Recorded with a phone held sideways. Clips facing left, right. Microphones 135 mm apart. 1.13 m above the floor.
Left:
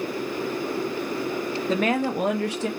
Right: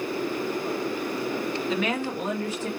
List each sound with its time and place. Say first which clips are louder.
1.7 s a woman speaking: left 7 dB; 40° left (ahead or behind), 0.8 m; by 2.7 s 80° left, 1.0 m